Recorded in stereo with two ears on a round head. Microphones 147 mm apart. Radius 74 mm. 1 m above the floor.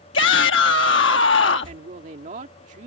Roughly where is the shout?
Left.